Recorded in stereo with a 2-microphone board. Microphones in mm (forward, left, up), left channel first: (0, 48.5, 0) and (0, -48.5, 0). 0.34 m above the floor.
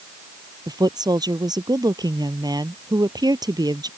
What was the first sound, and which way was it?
A woman speaking, 45° right (ahead or behind).